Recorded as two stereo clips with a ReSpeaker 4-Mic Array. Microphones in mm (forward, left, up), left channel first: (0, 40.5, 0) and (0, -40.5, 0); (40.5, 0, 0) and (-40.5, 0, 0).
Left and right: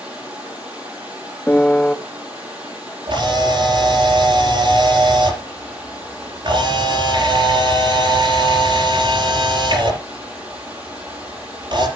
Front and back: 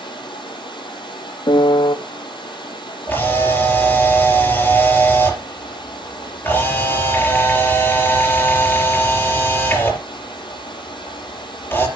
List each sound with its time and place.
0.0 s running water: 15° right, 6 m
1.5 s a piano: 15° left, 0.6 m
3.1 s a camera shutter: 65° right, 5.5 m